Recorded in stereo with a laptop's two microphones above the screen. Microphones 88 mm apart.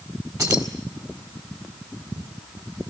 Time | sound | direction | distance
0.4 | keys jangling | 40° right (ahead or behind) | 1.9 m